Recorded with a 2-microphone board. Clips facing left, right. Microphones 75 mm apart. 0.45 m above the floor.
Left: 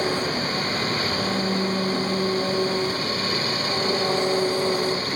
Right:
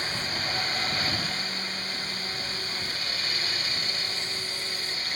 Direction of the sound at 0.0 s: 60° left (ahead or behind).